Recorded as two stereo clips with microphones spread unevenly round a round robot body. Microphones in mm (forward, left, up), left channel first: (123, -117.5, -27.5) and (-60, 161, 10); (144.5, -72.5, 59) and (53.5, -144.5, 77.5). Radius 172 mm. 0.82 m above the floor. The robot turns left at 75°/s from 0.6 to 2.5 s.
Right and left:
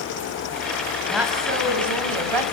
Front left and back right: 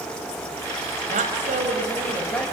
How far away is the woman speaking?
About 4.5 m.